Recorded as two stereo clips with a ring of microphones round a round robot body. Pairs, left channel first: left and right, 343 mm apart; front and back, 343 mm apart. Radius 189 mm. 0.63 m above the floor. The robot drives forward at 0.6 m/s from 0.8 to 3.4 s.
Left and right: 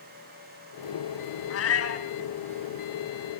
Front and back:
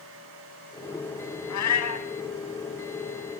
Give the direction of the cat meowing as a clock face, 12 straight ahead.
11 o'clock.